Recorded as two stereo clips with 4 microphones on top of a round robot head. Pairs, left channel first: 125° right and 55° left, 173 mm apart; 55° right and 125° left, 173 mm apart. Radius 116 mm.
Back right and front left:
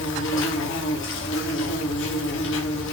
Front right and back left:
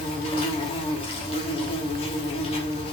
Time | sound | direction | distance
0.0 | an insect | 110° right | 1.2 m